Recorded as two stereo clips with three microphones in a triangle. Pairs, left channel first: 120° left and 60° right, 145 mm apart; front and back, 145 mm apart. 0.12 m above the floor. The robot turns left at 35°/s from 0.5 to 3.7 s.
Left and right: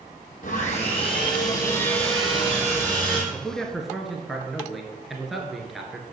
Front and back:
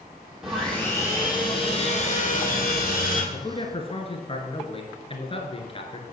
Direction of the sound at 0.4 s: 95° left.